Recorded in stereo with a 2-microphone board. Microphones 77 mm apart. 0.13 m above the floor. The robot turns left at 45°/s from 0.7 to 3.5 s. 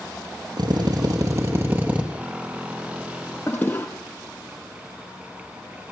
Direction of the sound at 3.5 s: 25° left (ahead or behind).